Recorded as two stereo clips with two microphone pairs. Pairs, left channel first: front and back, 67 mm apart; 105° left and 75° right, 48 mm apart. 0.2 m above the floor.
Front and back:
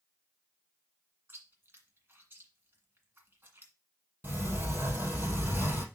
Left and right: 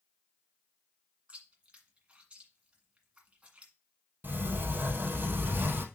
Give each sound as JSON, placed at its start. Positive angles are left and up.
{"t": 1.3, "sound": "chewing", "azimuth_deg": -135, "distance_m": 1.8}
{"t": 4.2, "sound": "a sliding door", "azimuth_deg": -125, "distance_m": 3.0}